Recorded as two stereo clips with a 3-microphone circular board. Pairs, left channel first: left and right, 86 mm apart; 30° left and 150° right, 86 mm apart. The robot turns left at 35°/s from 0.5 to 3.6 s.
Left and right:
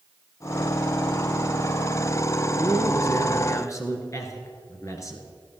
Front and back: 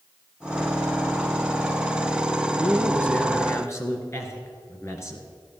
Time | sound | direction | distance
2.5 | a man speaking | 100° left | 1.9 m